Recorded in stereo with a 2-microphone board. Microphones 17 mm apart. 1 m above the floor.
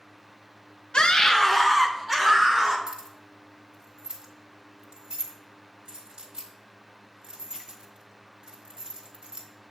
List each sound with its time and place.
0.9 s a scream: 65° left (ahead or behind), 0.5 m; by 2.8 s 20° right (ahead or behind), 2.0 m
2.9 s keys jangling: 55° right (ahead or behind), 1.4 m